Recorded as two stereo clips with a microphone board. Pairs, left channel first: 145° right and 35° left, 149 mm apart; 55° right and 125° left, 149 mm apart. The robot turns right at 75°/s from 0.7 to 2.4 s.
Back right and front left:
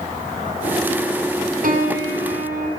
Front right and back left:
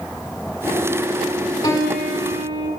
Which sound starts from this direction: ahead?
A piano, at 1.6 s.